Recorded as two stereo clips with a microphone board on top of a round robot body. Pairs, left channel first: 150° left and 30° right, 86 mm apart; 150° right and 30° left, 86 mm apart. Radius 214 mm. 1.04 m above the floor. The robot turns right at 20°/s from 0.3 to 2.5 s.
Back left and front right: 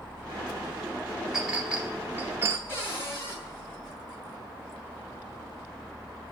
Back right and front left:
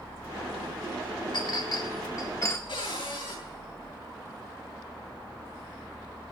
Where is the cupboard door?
145° right, 7.5 m.